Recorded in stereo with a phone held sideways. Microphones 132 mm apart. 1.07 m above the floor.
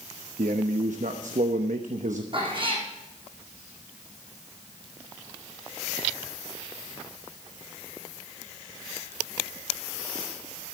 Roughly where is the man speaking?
Right.